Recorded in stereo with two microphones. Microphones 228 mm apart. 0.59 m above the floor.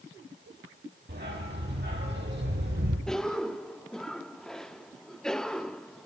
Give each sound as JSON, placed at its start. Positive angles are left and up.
{"t": 1.1, "sound": "a dog barking", "side_deg": -45, "distance_m": 6.5}
{"t": 3.1, "sound": "a cough", "side_deg": 5, "distance_m": 0.7}